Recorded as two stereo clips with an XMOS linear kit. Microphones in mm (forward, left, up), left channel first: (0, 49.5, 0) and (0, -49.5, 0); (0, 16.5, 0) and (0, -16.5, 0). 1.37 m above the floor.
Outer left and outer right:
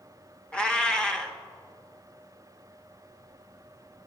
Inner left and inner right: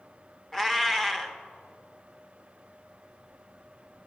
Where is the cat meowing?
10° left (ahead or behind), 0.8 m.